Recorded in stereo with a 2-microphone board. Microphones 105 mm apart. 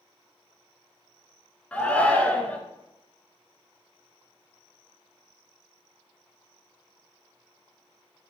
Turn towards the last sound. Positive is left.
turn(degrees=15)  # may be behind; listen again after turning